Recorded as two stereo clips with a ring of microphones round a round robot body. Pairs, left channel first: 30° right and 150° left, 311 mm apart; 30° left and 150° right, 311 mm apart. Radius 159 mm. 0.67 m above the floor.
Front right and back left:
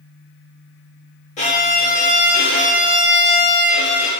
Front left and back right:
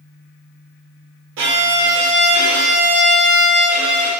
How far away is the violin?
About 0.7 m.